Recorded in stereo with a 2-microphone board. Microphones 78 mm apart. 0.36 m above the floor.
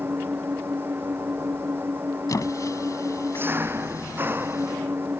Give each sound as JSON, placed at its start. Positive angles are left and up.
{"t": 0.0, "sound": "an engine running", "side_deg": -30}
{"t": 2.3, "sound": "a squeak", "side_deg": 50}